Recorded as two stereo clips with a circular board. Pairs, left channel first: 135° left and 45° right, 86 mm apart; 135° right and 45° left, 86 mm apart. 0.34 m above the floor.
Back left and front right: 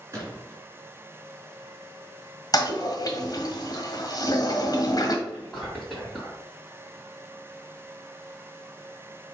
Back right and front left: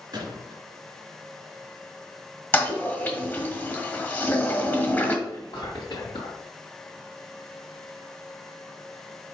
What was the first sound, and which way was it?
A gunshot, 10° left.